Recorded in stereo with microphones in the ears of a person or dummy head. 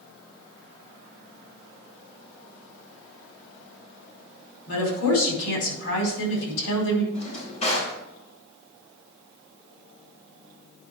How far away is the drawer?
About 3.5 m.